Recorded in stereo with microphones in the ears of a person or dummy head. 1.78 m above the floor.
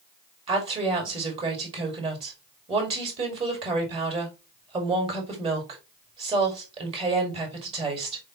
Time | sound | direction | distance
0.5 | a woman speaking | 35° right (ahead or behind) | 1.9 m